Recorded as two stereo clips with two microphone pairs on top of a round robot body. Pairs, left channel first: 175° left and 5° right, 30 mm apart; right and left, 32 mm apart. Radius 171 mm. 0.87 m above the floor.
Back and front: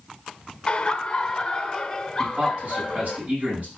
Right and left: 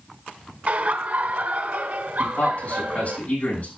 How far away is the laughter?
About 1.2 m.